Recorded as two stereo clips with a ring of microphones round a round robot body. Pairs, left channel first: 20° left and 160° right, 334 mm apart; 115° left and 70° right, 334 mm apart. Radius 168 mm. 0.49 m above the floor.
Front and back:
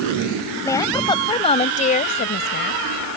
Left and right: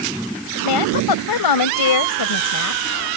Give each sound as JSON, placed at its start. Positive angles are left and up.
{"t": 0.7, "sound": "a woman speaking", "azimuth_deg": 105}